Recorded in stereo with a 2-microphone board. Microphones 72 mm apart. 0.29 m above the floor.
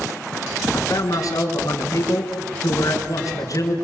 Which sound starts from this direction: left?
A man speaking, at 0.7 s.